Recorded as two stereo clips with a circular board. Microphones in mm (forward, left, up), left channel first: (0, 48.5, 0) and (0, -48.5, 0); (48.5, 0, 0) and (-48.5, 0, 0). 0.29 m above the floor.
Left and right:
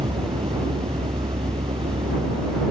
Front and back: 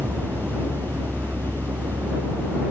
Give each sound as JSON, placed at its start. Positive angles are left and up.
{"t": 0.0, "sound": "a vehicle", "azimuth_deg": -110}